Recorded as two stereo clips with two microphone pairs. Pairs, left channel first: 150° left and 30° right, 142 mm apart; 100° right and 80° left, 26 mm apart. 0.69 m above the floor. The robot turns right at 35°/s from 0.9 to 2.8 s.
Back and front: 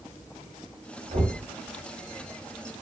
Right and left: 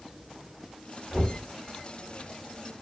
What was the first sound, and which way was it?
Knocking, 10° right.